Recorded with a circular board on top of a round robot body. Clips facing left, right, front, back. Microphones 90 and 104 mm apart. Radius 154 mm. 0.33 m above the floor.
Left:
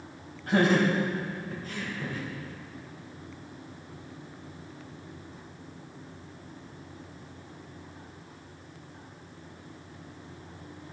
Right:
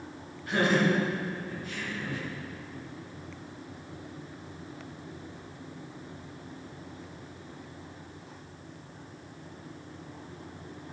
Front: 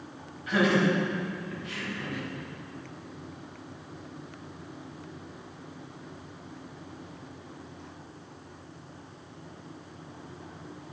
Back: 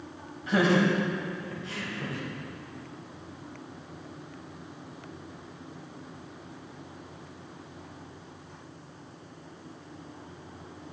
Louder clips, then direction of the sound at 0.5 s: Left 2 dB, back 1 dB; 125° left.